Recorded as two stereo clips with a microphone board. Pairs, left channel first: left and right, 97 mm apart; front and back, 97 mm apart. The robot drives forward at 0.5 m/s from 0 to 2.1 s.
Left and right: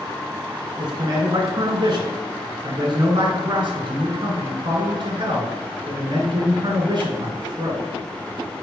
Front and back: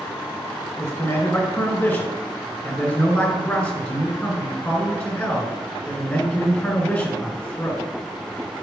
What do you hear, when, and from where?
0.8 s a man speaking: 55° right, 2.5 m; by 7.8 s 75° right, 2 m